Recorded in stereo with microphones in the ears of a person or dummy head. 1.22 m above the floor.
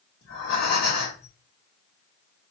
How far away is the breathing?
About 2.5 m.